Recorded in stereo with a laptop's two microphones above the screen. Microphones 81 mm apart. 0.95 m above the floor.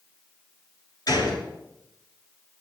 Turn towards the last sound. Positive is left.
turn(degrees=55)  # may be behind; listen again after turning